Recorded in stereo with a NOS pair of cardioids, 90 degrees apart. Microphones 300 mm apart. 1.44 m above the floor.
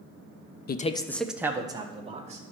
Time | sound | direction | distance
0.7 | a man speaking | 35° left | 0.6 m